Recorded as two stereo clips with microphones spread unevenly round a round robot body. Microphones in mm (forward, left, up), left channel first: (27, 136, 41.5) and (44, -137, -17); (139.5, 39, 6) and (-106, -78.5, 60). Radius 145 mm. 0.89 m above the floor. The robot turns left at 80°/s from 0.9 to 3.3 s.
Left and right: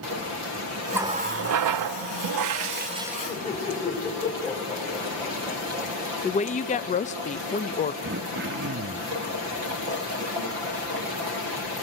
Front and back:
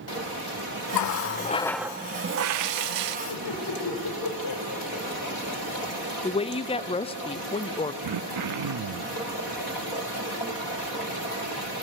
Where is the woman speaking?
30° left, 0.7 m.